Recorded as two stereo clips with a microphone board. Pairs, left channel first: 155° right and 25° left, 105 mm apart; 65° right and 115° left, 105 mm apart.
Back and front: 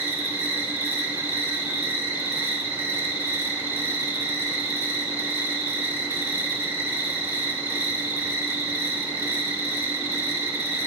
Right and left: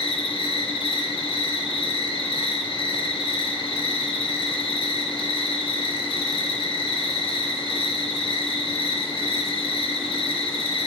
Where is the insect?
40° right, 1.5 m.